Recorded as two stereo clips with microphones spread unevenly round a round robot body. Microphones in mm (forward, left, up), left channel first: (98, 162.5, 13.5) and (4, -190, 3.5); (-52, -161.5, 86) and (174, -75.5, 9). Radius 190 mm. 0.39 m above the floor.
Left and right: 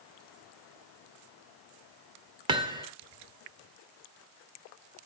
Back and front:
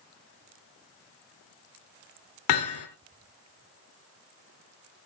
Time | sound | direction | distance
2.5 | hammering | 175° left | 1.6 m